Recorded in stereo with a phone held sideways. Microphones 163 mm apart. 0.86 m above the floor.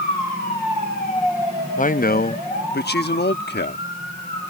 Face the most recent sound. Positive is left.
turn(degrees=80)